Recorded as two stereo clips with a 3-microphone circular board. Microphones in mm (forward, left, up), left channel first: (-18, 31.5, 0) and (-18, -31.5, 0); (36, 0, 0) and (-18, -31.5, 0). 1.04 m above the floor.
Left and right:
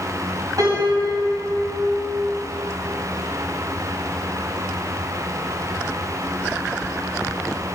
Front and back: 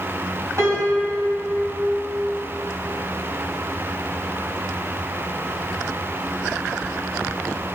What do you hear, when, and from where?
0.6 s a piano: 110° right, 4 m